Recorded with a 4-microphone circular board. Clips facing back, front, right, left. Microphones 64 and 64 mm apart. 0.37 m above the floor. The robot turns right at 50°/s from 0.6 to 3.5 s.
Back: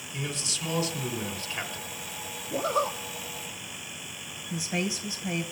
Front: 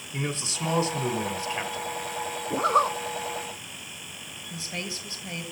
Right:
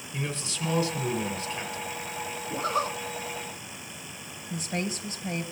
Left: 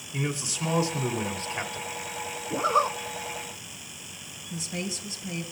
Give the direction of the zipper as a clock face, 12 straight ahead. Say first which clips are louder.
Front 5 dB, left 5 dB; 12 o'clock.